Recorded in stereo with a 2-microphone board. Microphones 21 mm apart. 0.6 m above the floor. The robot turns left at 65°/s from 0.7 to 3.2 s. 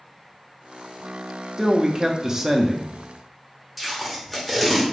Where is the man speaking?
15° right (ahead or behind), 0.6 m.